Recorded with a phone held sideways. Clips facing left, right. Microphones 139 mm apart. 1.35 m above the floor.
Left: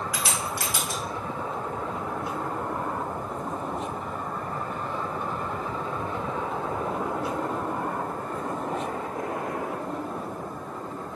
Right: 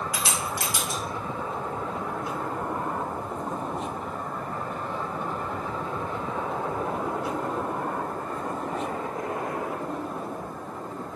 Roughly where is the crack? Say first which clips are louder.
Even; right.